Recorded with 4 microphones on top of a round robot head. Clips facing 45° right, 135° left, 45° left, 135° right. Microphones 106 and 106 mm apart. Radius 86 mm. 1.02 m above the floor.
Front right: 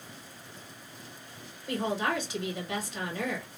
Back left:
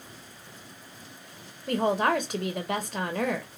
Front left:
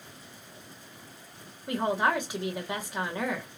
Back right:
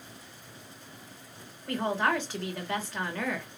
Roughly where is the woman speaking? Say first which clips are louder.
Back left 6 dB, front left 1 dB; behind left.